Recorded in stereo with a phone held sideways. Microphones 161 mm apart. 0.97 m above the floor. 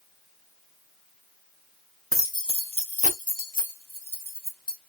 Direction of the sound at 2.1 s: 15° left (ahead or behind).